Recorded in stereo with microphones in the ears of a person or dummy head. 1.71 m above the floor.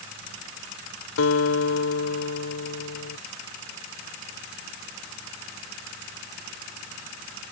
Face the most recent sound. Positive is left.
turn(degrees=85)